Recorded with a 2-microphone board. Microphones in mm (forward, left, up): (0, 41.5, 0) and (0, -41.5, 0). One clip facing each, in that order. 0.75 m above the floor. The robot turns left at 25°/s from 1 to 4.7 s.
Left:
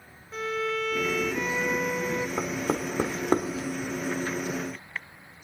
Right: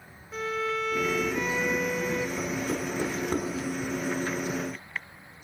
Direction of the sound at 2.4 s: 70° left (ahead or behind).